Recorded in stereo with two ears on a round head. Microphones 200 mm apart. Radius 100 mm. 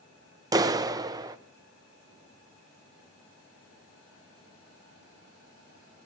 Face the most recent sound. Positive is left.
turn(degrees=-15)  # may be behind; listen again after turning